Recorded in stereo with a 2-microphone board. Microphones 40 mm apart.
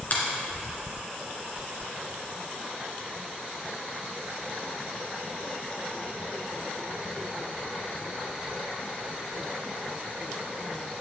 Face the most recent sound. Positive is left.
turn(degrees=45)  # may be behind; listen again after turning